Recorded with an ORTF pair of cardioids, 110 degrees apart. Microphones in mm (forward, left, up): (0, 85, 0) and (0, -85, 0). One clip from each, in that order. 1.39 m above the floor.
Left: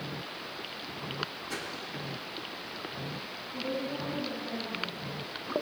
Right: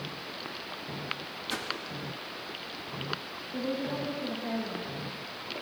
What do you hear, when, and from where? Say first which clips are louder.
1.5 s a whoosh: right 4 dB; 35° right, 1.9 m
3.5 s a woman speaking: right 1 dB; 65° right, 6 m